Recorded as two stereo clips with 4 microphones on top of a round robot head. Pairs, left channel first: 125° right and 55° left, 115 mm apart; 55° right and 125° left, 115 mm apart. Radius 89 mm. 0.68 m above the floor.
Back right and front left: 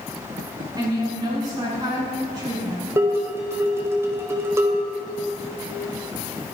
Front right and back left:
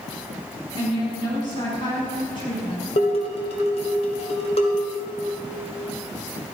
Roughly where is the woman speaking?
Ahead.